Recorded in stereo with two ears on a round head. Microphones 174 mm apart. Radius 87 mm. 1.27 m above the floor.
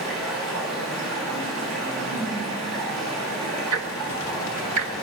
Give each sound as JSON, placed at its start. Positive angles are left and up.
{"t": 0.0, "sound": "running water", "side_deg": -85, "distance_m": 8.0}
{"t": 3.7, "sound": "ticking", "side_deg": -80, "distance_m": 1.4}